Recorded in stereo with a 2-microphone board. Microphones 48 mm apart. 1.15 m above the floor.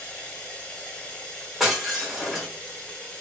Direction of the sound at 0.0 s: 20° left (ahead or behind).